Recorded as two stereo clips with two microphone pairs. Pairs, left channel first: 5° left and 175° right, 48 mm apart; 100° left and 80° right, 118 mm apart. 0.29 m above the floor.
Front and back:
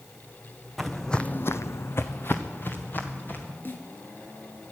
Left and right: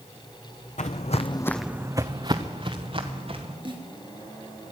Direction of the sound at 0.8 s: 100° left.